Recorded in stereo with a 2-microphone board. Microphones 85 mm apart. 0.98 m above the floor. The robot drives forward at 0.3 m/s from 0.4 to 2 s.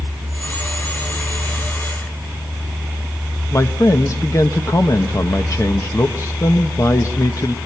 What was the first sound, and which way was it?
A man speaking, 40° left (ahead or behind).